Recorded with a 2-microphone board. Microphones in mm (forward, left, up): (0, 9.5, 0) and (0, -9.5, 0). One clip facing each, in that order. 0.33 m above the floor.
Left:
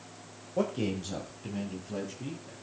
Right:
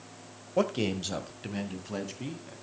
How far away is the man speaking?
About 1.3 m.